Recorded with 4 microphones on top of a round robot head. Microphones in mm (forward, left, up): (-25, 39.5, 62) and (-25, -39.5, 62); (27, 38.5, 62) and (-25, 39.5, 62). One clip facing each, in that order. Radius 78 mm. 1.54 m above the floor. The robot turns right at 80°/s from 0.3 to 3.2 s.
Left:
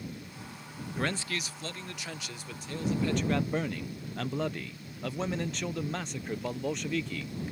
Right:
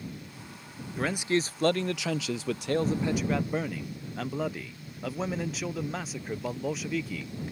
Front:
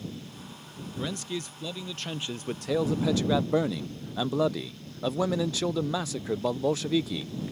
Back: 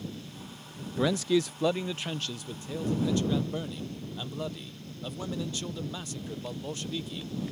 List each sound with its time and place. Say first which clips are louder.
1.0 s a man speaking: right 6 dB, back 8 dB; straight behind; by 7.3 s 5° right